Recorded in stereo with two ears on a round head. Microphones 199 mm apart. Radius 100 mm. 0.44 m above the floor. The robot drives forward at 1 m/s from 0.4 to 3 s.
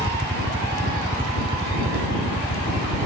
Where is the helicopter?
20° right (ahead or behind); by 3.1 s 15° right (ahead or behind).